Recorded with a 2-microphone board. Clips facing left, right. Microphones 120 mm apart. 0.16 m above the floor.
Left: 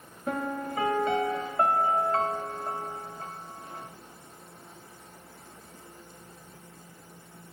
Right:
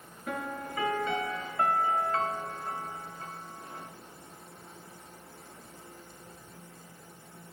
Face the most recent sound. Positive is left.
turn(degrees=35)  # may be behind; listen again after turning